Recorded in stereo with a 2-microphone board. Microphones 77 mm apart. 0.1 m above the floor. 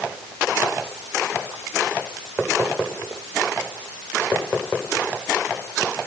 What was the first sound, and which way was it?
Only background noise.